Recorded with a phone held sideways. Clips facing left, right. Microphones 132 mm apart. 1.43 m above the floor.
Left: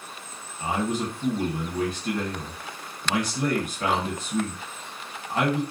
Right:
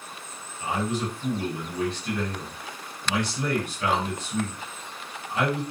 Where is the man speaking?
45° left (ahead or behind), 1.1 m.